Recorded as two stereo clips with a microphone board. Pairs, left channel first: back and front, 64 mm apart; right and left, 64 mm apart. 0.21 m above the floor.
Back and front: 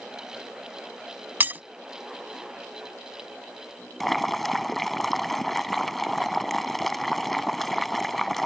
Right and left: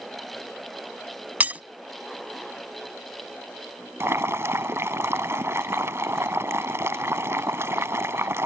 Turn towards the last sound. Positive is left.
turn(degrees=95)